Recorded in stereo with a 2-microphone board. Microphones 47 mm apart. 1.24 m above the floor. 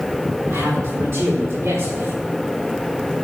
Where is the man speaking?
70° right (ahead or behind), 4.5 m; by 2.1 s 80° right, 3 m.